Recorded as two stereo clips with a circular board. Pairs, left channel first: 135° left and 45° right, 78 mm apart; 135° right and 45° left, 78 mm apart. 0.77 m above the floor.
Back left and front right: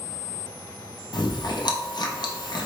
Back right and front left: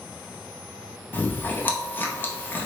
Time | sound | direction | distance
1.1 | chewing | 160° left | 0.5 m